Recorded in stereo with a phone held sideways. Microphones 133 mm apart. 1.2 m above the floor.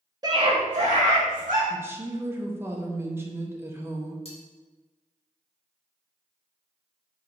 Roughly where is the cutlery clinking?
Left.